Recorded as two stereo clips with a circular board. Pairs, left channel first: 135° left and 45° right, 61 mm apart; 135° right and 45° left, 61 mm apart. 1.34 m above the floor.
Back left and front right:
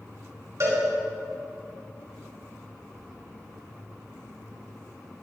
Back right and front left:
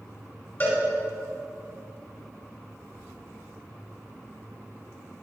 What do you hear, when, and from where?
0.6 s a cowbell: 85° right, 4.5 m